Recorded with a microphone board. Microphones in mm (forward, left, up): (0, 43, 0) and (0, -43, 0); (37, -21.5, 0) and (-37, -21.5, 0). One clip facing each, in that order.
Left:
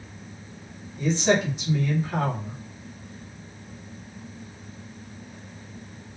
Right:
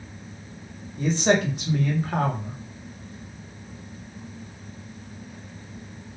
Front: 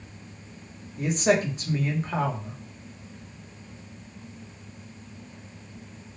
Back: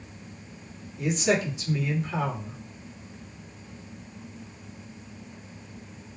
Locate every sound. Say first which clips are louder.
1.0 s a man speaking: right 1 dB, front 2 dB; 50° right, 1.1 m